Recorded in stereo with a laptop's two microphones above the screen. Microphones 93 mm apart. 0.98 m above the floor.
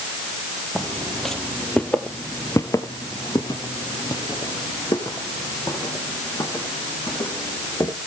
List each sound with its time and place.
0.8 s footsteps: centre (ahead or behind), 2 m; by 7.9 s 40° left (ahead or behind), 5 m